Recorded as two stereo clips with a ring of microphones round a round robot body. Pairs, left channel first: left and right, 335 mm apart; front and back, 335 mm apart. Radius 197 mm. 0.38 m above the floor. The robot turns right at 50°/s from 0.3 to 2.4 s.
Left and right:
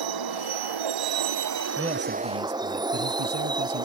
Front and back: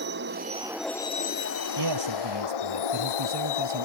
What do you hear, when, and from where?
0.0 s a vehicle: 115° right; by 3.9 s 10° right
1.8 s a man speaking: 170° right; by 3.9 s 140° right